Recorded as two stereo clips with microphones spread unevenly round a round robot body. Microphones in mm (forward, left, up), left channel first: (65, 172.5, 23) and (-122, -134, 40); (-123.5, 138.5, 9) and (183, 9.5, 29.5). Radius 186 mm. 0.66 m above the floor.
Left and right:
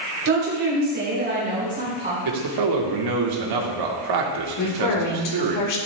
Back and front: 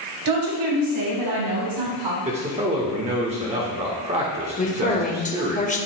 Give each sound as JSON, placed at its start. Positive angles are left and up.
{"t": 0.2, "sound": "a woman speaking", "azimuth_deg": -65, "distance_m": 3.5}
{"t": 2.2, "sound": "a man speaking", "azimuth_deg": -95, "distance_m": 1.6}
{"t": 4.6, "sound": "a woman speaking", "azimuth_deg": 90, "distance_m": 2.0}